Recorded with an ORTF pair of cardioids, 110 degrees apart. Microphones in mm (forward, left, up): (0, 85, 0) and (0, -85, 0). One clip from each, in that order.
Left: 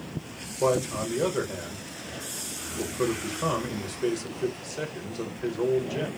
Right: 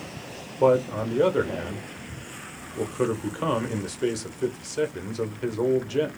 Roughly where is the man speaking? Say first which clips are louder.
Right 5 dB; ahead.